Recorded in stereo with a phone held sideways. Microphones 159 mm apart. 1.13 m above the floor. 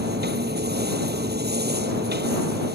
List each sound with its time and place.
0.0 s a machine running: 80° right